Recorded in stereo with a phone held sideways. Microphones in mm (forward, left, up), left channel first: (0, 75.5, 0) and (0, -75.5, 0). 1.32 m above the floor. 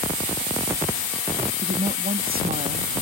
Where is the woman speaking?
80° right.